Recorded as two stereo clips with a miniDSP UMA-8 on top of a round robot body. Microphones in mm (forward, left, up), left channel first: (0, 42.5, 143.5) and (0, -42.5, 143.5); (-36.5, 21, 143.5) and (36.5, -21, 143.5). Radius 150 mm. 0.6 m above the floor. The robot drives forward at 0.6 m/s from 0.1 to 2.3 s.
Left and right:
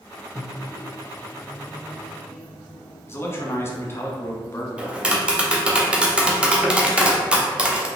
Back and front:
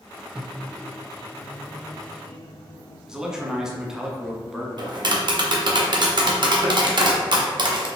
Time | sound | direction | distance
0.3 | a microwave | 50° left | 0.6 m
3.1 | a man speaking | 50° left | 1.3 m
4.8 | tapping | 15° right | 0.9 m